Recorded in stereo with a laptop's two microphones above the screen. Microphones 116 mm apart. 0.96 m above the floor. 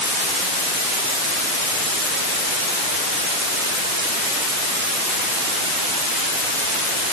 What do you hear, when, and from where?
Only background noise.